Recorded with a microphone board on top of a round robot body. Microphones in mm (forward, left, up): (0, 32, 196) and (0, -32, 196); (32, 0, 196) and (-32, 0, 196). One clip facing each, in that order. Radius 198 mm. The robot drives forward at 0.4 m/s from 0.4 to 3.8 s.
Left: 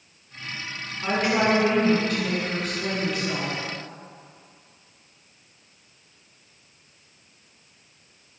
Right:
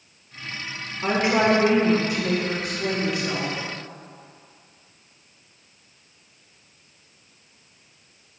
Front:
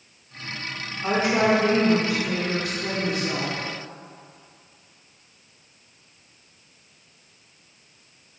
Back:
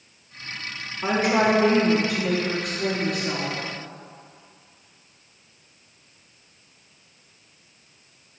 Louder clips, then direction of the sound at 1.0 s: Right 2 dB, back 1 dB; 150° right.